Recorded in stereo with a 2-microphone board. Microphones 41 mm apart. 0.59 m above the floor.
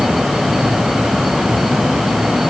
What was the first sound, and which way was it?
Only background noise.